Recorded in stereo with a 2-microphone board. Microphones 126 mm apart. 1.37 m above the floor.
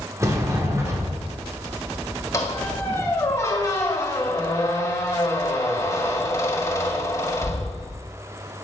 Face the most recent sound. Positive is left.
turn(degrees=30)  # may be behind; listen again after turning